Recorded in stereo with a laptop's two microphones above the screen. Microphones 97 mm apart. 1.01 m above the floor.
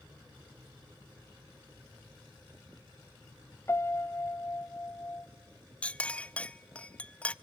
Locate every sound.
3.7 s a piano: 25° left (ahead or behind), 0.6 m
5.8 s a clink: 15° left (ahead or behind), 0.6 m